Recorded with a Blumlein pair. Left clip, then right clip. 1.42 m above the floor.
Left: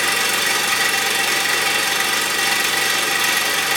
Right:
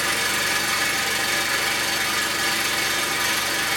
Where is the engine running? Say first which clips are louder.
Left 4 dB; 30° left, 1.2 m.